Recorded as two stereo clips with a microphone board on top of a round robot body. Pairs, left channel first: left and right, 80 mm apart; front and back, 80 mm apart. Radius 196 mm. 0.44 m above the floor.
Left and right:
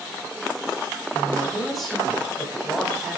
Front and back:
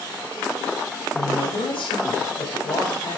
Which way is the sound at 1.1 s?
Straight ahead.